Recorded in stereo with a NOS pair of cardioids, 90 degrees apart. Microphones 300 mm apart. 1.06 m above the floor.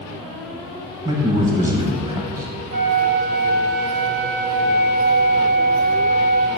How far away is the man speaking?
About 0.7 m.